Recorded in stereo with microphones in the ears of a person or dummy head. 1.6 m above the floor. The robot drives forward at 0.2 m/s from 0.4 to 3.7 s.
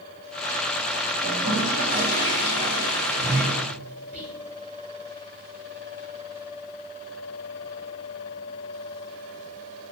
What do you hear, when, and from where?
1.2 s a toilet flushing: 40° left (ahead or behind), 1.7 m; by 3.5 s 35° left (ahead or behind), 1.8 m
4.1 s whispering: 5° right (ahead or behind), 0.6 m